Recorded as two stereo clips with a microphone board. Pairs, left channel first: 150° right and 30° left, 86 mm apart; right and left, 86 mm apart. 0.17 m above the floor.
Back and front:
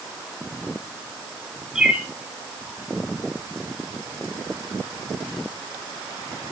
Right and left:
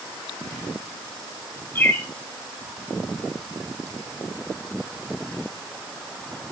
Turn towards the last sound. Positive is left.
turn(degrees=-45)